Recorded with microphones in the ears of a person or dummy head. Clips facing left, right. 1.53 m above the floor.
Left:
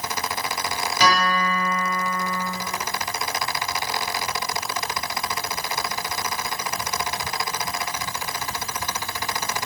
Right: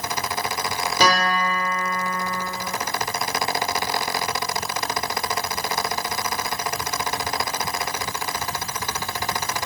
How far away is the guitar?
About 2.0 m.